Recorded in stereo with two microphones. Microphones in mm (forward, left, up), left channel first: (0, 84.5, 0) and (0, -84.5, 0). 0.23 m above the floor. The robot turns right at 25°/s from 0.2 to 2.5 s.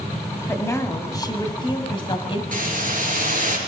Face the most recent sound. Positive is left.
turn(degrees=-55)  # may be behind; listen again after turning